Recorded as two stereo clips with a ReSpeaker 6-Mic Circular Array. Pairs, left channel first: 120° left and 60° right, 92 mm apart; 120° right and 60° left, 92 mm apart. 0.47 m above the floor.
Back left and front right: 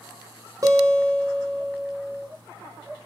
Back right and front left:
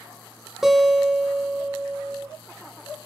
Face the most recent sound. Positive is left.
turn(degrees=-25)